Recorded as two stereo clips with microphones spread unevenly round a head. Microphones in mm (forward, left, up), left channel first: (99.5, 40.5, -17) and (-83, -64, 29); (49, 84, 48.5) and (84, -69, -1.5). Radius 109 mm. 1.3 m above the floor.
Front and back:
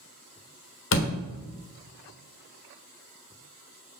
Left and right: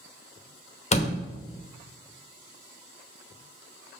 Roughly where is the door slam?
Left.